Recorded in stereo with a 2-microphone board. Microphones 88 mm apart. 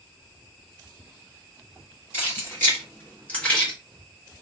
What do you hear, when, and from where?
2.1 s keys jangling: 25° left (ahead or behind), 1.7 m; by 3.7 s 10° left (ahead or behind), 1.1 m